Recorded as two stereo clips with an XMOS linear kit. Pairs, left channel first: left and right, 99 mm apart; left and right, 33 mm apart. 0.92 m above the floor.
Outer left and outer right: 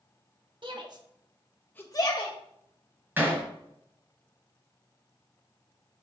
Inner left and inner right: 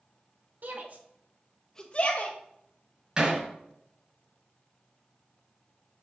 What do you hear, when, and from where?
0.6 s a shout: 55° right (ahead or behind), 1.5 m; by 2.4 s 60° left (ahead or behind), 1.1 m
3.2 s hammering: 25° right (ahead or behind), 3.5 m